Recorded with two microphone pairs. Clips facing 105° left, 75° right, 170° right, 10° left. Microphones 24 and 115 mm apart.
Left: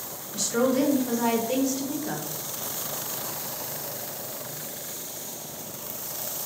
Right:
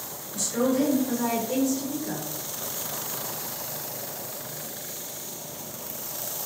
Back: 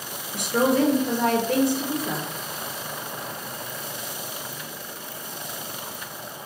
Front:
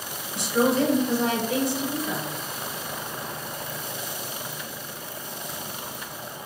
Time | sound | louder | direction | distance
0.3 | a woman speaking | left 1 dB, back 1 dB | 160° left | 0.6 m